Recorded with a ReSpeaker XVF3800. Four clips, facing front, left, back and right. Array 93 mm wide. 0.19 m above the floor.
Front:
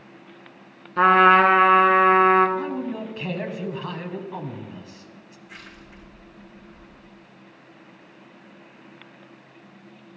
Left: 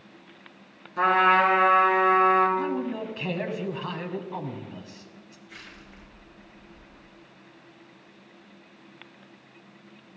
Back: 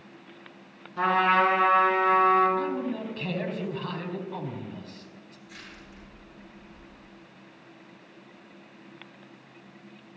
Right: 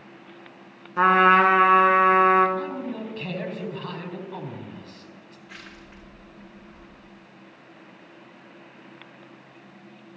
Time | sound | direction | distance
1.0 | a trumpet | 30° right | 1.1 m
2.6 | a man speaking | 40° left | 1.1 m
5.5 | crushing | 60° right | 5.5 m